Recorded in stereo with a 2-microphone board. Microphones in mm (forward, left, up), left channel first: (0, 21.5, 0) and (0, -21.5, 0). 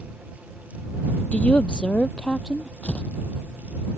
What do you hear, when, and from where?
1.3 s a woman speaking: 35° left (ahead or behind); by 2.7 s 5° left (ahead or behind)
2.8 s tearing paper: 30° left (ahead or behind)